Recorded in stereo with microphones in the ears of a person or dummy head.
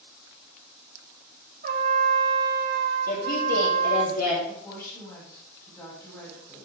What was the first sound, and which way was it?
A trumpet, 45° right (ahead or behind).